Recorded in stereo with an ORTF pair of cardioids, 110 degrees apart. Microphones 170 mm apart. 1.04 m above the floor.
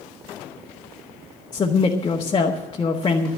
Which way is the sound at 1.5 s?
30° left.